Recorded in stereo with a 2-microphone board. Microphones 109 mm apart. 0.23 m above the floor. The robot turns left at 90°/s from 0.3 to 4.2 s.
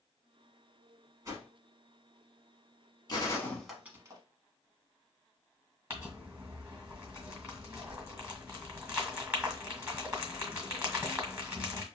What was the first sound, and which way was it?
A whoosh, 30° right (ahead or behind).